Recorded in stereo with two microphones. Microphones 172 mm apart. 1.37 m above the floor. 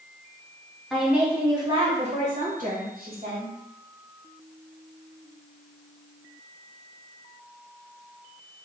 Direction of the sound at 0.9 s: Centre (ahead or behind).